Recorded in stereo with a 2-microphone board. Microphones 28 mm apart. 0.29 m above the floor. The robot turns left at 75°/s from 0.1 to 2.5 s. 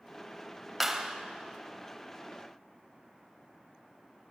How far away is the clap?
About 0.9 m.